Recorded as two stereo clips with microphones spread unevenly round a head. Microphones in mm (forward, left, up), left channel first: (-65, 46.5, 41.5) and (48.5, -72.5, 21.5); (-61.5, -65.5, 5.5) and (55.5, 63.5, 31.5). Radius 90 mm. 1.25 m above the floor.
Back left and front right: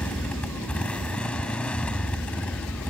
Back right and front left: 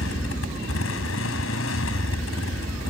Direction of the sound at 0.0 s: 145° right.